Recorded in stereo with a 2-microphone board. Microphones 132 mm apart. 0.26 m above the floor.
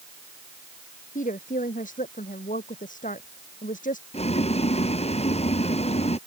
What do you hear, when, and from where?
1.1 s a woman speaking: 85° left
4.1 s boiling: 50° left (ahead or behind)